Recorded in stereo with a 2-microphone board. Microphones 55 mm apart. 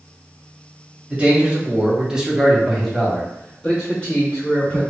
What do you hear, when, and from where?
1.1 s a man speaking: 20° right (ahead or behind), 1.2 m; by 4.8 s 20° left (ahead or behind), 1.4 m